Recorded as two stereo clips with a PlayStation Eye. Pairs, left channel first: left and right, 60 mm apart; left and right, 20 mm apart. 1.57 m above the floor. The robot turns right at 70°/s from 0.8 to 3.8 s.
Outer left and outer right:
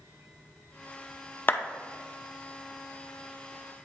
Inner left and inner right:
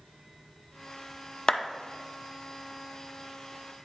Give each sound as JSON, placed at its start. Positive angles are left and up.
{"t": 1.5, "sound": "a clap", "side_deg": 35, "distance_m": 0.6}